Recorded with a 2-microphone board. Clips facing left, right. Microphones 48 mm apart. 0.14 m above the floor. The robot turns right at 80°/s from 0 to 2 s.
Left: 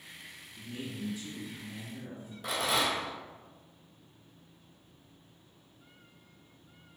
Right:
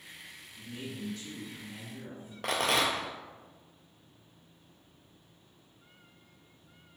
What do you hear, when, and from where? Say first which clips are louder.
0.6 s a man speaking: left 1 dB; 105° left, 2.0 m; by 2.3 s 140° right, 2.0 m
2.4 s a rattle: right 2 dB; 65° right (ahead or behind), 0.7 m